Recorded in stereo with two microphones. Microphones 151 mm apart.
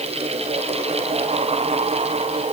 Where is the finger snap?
I don't hear a finger snap.